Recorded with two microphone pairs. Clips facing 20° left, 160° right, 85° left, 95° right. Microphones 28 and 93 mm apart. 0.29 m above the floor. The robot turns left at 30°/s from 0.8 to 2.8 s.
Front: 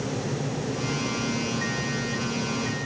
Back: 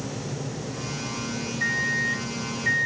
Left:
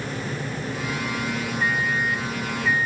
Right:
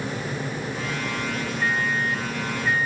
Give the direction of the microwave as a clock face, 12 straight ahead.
4 o'clock.